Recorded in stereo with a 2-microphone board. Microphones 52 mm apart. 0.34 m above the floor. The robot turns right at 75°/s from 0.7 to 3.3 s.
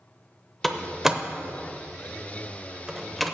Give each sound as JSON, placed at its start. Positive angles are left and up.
{"t": 0.6, "sound": "a door slam", "side_deg": 5, "distance_m": 0.7}